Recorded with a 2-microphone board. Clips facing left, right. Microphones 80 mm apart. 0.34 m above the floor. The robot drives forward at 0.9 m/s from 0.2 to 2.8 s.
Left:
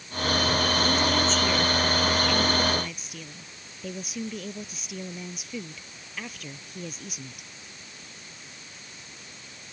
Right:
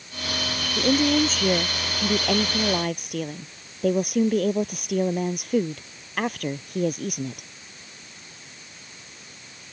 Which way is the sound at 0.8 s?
45° right (ahead or behind).